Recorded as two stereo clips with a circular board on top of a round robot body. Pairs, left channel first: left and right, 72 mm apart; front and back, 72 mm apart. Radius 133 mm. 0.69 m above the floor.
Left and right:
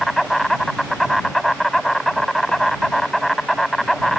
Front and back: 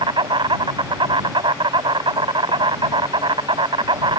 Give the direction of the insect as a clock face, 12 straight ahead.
6 o'clock.